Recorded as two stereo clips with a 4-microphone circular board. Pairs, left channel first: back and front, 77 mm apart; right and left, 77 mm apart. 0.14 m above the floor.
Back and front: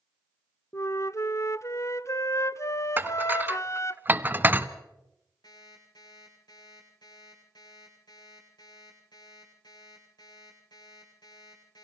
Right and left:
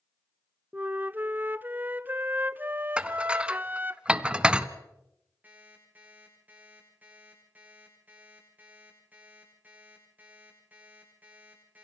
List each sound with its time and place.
0.7 s a flute: 145° left, 0.5 m
3.0 s dishes clattering: 30° left, 0.9 m
5.4 s an alarm clock: 160° left, 10 m